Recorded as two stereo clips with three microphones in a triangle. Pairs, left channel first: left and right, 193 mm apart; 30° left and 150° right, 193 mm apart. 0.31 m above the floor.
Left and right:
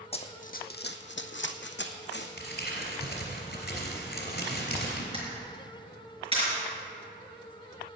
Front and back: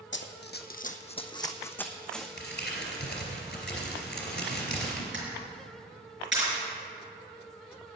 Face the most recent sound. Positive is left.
turn(degrees=-150)